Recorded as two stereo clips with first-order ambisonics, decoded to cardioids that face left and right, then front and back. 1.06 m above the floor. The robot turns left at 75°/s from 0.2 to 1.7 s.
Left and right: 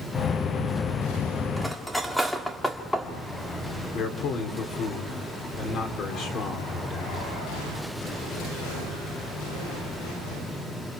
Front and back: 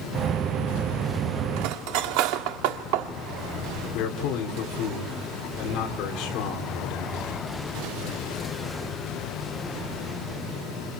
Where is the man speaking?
35° left, 4 m.